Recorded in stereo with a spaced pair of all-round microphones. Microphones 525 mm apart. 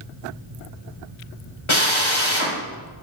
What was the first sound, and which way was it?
A drill, 60° left (ahead or behind).